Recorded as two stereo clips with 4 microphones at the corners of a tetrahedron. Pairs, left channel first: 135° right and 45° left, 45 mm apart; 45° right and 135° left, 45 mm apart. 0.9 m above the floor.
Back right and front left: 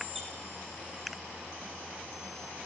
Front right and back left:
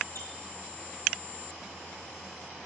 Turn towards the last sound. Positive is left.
turn(degrees=-45)